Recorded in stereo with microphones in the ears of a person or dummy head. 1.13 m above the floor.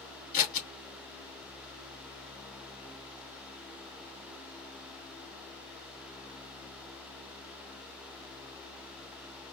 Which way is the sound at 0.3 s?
50° left (ahead or behind).